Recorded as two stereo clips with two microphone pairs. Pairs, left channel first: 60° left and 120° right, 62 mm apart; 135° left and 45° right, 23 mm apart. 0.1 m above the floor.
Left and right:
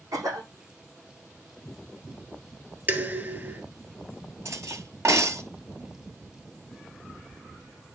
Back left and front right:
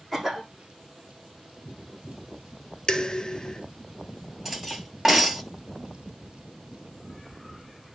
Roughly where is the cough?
Behind right.